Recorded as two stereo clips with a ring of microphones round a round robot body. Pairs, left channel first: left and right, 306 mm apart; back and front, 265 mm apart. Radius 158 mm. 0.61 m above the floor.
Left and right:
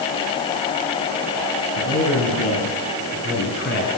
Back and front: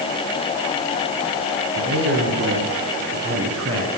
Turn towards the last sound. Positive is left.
turn(degrees=30)